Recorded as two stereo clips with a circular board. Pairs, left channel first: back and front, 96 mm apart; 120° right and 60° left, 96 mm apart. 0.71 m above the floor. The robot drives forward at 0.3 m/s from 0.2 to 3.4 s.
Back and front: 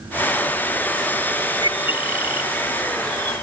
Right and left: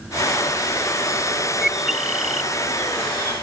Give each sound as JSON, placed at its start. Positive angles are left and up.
{"t": 1.6, "sound": "a bird", "azimuth_deg": 145}